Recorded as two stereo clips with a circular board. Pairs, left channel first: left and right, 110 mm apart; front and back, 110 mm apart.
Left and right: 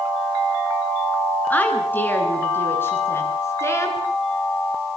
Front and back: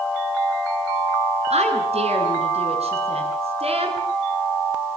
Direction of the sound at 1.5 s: 165° left.